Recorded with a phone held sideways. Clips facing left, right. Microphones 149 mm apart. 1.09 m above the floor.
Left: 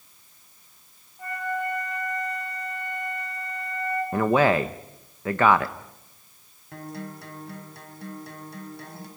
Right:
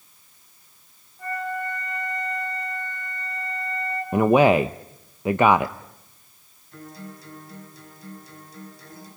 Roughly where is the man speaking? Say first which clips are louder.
Right 5 dB; centre.